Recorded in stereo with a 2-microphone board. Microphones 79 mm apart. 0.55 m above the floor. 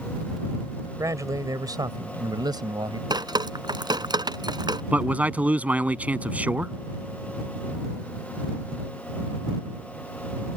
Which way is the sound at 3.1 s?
75° right (ahead or behind).